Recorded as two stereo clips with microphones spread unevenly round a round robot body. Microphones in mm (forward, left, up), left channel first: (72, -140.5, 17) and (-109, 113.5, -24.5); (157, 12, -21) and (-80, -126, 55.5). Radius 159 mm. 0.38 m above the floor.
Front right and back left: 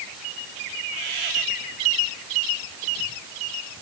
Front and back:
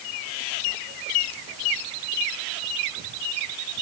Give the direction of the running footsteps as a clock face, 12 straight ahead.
No running footsteps in this recording.